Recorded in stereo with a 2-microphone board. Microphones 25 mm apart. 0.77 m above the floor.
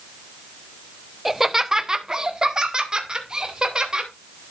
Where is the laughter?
5° right (ahead or behind), 0.7 m; by 4.1 s 35° right (ahead or behind), 3 m.